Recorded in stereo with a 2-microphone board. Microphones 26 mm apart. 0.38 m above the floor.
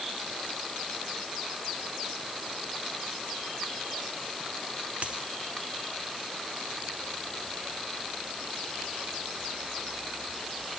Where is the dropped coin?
50° right (ahead or behind), 0.6 m.